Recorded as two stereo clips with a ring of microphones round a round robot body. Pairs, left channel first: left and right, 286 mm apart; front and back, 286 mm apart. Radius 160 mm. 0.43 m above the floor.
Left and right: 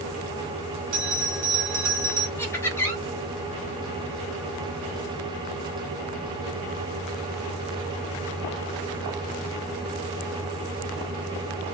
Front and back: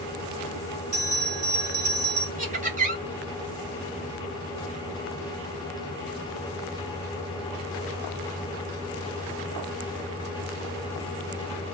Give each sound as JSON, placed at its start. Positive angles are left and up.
{"t": 0.9, "sound": "a bell", "azimuth_deg": -120, "distance_m": 2.0}
{"t": 2.4, "sound": "laughter", "azimuth_deg": 165, "distance_m": 1.5}